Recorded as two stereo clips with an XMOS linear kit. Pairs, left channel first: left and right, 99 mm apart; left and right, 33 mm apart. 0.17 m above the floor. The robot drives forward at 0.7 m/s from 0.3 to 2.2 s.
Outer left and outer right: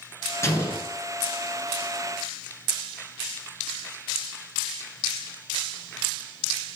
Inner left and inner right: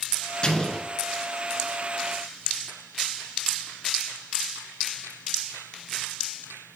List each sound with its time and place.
0.4 s an explosion: 30° left (ahead or behind), 1.8 m; by 0.9 s 25° left (ahead or behind), 2.0 m